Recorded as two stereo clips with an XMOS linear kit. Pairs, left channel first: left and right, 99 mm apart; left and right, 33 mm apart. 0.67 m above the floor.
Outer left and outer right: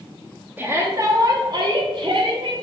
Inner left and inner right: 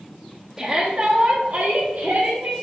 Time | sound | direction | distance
0.6 | a shout | 15° right (ahead or behind) | 1.2 m